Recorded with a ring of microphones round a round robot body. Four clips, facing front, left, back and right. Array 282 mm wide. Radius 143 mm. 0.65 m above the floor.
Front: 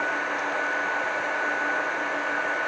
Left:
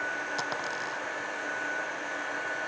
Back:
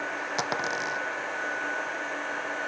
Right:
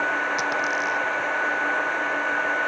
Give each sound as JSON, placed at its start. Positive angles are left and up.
{"t": 0.4, "sound": "a dropped coin", "azimuth_deg": -175}